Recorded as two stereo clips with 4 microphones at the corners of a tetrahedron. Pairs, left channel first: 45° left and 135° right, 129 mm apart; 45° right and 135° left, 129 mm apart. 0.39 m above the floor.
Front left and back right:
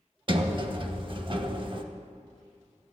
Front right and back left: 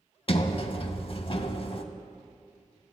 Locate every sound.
0.3 s a sliding door: 85° right, 0.6 m